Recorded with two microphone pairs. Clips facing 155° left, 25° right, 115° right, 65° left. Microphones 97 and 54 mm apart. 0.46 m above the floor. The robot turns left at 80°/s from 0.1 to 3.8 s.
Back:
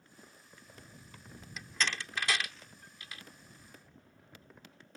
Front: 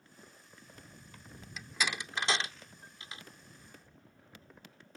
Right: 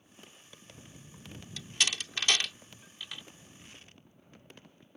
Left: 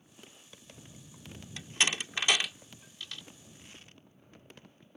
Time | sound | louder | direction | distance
1.6 | a door slam | even, left 2 dB | 70° left | ?